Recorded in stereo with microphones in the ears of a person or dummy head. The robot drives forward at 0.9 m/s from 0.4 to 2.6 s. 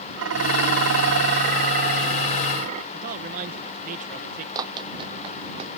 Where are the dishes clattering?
80° right; by 2.8 s 50° right (ahead or behind).